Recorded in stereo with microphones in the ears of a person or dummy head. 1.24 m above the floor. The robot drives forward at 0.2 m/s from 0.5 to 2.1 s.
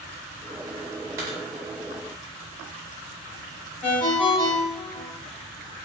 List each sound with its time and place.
1.2 s a dropped coin: 20° right (ahead or behind), 0.5 m
3.8 s a ringtone: 45° left (ahead or behind), 0.8 m